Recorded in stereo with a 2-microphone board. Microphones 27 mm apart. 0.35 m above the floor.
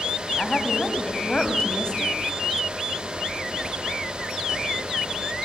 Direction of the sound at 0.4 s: 30° left (ahead or behind).